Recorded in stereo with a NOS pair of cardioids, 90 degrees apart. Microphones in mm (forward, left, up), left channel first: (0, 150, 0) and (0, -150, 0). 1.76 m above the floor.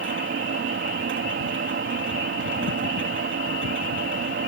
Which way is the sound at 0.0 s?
40° right.